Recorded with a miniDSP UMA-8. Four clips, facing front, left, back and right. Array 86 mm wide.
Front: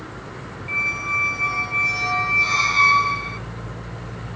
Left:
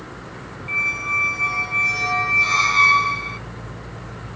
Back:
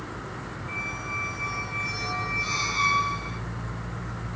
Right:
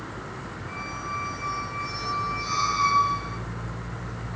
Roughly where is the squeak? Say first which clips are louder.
Left 7 dB, front 9 dB; ahead left.